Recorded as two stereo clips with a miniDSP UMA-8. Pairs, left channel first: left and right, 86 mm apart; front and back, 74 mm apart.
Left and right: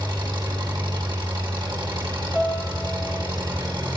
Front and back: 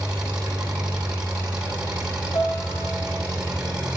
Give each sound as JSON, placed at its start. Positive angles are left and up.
{"t": 0.0, "sound": "an engine running", "azimuth_deg": -105, "distance_m": 6.5}
{"t": 2.3, "sound": "a piano", "azimuth_deg": -5, "distance_m": 9.5}